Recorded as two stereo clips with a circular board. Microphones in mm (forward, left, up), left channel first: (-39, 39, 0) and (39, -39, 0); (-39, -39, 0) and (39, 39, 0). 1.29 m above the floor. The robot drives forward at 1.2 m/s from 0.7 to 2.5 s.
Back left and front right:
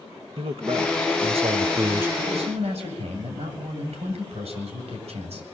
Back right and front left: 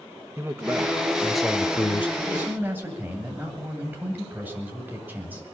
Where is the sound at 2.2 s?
25° right, 9 m; by 5.4 s 30° right, 9 m.